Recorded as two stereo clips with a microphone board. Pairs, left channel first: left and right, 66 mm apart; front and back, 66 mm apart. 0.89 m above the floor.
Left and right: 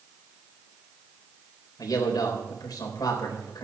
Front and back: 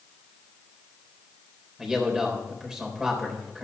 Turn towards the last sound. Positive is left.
turn(degrees=100)